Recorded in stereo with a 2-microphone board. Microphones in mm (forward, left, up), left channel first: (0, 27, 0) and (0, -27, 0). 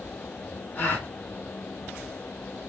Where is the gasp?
30° left (ahead or behind), 1.1 m.